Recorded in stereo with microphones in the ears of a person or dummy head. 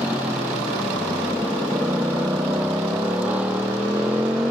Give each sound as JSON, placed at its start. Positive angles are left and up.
{"t": 0.0, "sound": "a motorcycle", "side_deg": -10}